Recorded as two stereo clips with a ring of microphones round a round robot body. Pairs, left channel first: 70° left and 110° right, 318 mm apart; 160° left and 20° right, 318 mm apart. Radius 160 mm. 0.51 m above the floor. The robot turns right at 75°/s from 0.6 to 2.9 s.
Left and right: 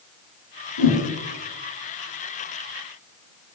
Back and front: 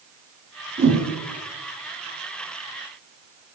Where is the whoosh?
45° left, 3 m; by 1.0 s 65° left, 3 m.